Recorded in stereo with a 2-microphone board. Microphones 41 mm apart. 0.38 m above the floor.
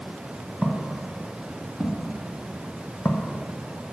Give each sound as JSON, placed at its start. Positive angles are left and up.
{"t": 0.6, "sound": "footsteps", "side_deg": 10, "distance_m": 2.0}